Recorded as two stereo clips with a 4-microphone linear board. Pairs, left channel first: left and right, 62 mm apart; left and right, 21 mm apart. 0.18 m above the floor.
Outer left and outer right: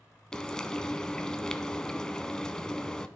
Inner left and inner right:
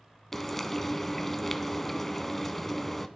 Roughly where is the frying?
Centre.